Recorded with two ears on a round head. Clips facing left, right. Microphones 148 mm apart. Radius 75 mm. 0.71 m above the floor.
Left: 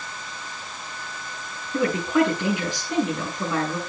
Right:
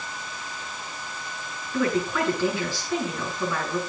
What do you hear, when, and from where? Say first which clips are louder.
1.7 s a woman speaking: left 3 dB; 20° left (ahead or behind), 9 m